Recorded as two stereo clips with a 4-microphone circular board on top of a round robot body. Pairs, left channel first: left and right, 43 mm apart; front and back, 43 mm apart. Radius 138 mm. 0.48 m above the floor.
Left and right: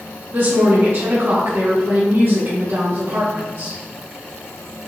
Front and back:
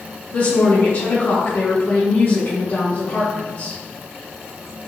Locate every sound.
0.3 s a woman speaking: 45° right, 3.5 m